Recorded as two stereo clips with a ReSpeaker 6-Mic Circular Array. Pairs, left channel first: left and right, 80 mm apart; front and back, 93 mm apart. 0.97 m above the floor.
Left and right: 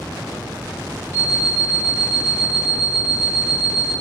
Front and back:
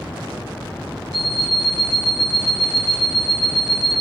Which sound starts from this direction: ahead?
An alarm clock, at 1.1 s.